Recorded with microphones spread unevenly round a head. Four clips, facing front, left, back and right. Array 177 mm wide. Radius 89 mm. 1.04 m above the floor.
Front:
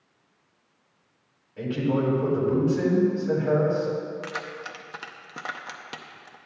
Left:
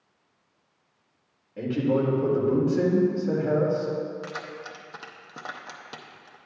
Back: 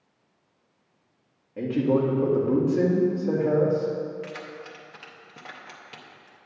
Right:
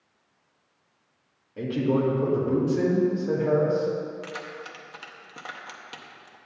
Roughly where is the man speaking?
Behind.